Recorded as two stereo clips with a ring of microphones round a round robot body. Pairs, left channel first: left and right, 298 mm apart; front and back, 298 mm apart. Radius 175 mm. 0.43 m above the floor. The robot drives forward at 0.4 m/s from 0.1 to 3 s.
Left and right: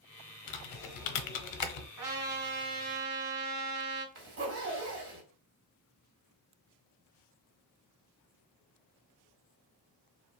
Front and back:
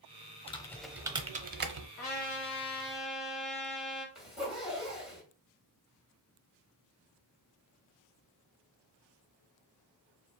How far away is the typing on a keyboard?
About 0.5 m.